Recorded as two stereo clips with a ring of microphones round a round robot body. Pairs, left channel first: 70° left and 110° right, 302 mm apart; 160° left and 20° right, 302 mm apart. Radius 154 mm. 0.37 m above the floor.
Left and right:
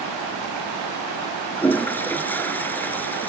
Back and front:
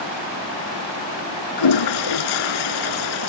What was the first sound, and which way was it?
A toilet flushing, 150° left.